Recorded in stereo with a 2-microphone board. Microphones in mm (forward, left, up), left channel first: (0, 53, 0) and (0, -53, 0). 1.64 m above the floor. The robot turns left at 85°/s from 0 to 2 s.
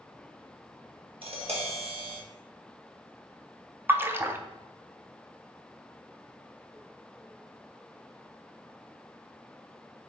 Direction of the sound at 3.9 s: 20° right (ahead or behind).